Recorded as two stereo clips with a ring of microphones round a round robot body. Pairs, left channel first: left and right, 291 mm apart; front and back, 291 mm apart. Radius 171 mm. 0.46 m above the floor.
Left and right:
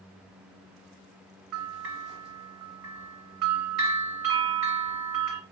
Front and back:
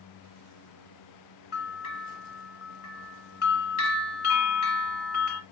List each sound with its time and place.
1.5 s a bell: 50° right, 1.8 m